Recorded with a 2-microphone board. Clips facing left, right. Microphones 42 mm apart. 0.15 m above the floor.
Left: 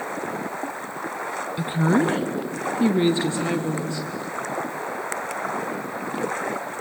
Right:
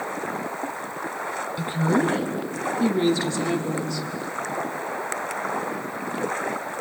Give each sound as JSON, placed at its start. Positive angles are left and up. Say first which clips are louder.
{"t": 1.6, "sound": "a woman speaking", "louder": "left 2 dB", "side_deg": 25, "distance_m": 1.3}